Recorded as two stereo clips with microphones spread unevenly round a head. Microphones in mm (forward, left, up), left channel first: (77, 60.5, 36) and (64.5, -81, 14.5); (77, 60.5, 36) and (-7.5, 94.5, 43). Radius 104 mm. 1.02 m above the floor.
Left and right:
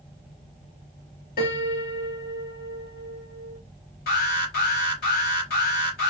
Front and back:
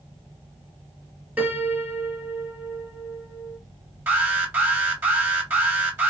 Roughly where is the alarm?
Left.